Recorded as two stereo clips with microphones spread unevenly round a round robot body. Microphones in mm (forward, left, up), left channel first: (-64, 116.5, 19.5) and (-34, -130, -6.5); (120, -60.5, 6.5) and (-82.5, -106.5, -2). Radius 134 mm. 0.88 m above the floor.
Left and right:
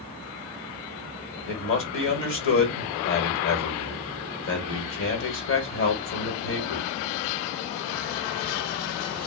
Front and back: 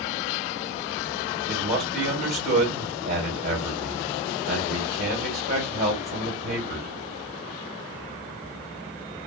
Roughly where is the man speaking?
Behind left.